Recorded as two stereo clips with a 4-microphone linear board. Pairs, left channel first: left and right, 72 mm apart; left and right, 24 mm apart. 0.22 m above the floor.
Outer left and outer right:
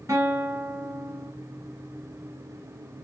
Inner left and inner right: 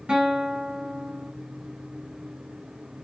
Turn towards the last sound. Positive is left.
turn(degrees=-45)  # may be behind; listen again after turning